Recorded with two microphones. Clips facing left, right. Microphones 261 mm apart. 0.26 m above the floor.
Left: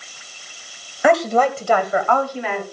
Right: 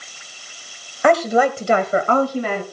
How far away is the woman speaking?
About 1.0 m.